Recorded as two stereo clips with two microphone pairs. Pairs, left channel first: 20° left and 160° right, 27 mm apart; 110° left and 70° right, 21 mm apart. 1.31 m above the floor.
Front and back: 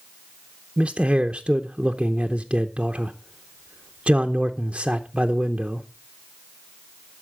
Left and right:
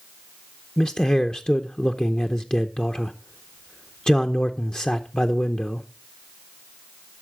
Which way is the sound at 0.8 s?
160° left.